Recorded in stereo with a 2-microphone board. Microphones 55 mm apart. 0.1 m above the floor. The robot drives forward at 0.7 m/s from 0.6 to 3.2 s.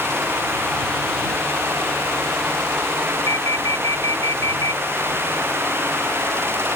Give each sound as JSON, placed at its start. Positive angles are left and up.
{"t": 3.3, "sound": "an alarm", "side_deg": 80}